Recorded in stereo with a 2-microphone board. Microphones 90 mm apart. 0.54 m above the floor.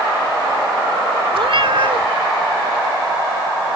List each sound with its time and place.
1.3 s a cat meowing: 80° right